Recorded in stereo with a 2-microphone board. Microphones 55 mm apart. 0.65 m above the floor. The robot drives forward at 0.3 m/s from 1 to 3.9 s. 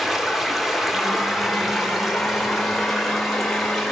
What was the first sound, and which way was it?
Running water, 5° right (ahead or behind).